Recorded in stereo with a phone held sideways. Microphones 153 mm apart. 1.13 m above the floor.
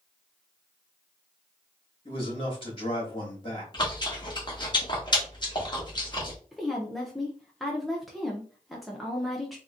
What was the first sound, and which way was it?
A man speaking, 35° left (ahead or behind).